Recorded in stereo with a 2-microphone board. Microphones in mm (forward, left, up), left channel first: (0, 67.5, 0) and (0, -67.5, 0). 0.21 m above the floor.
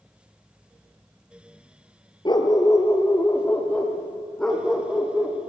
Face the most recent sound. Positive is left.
turn(degrees=0)  # may be behind; listen again after turning